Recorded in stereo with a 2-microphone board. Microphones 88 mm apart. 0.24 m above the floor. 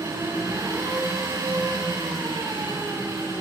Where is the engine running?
35° right (ahead or behind), 7.5 m.